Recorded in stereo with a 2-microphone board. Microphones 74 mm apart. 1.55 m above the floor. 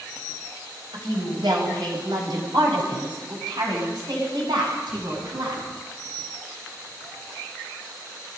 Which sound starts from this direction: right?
A woman speaking, at 0.9 s.